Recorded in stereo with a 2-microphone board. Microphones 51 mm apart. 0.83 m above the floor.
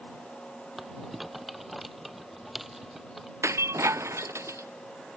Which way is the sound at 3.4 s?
70° right (ahead or behind).